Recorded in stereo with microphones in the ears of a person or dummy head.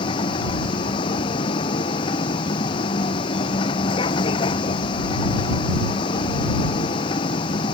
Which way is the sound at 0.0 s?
30° left (ahead or behind).